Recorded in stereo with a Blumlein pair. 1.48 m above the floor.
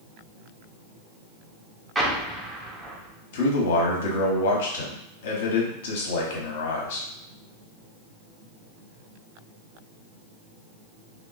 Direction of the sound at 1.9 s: 10° right.